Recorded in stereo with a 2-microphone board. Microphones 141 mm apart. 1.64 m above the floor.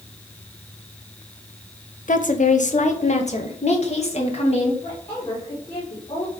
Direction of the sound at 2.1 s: 65° left (ahead or behind).